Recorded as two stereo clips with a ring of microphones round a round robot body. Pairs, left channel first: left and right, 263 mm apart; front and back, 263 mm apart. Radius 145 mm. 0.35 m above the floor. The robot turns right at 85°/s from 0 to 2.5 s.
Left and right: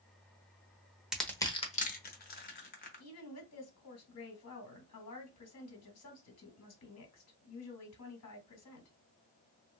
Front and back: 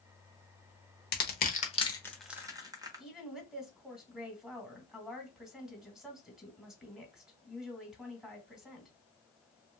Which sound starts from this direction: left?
A woman speaking, at 3.0 s.